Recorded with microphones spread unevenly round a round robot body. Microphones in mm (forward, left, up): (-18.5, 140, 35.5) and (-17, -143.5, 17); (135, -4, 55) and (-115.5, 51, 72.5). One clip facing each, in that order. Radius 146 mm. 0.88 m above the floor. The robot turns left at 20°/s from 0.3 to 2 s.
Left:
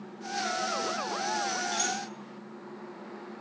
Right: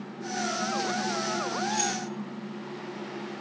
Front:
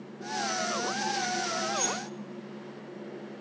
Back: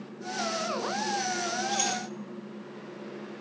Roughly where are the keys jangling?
Behind.